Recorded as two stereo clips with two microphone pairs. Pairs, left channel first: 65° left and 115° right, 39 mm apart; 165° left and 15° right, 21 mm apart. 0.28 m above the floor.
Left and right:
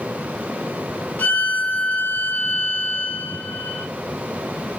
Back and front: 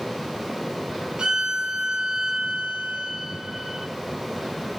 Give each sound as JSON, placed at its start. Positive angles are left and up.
{"t": 1.2, "sound": "a violin", "azimuth_deg": 30, "distance_m": 0.7}